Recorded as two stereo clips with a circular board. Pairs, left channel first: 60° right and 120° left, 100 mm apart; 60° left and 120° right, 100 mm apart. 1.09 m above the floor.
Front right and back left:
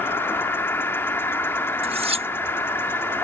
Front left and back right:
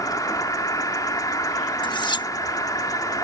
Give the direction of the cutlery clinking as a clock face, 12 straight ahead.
9 o'clock.